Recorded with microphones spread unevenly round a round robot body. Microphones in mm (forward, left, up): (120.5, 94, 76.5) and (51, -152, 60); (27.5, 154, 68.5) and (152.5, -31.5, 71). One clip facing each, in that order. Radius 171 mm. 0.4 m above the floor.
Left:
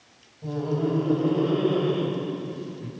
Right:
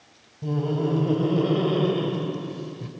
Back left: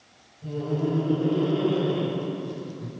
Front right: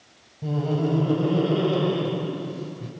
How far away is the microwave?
I don't hear a microwave.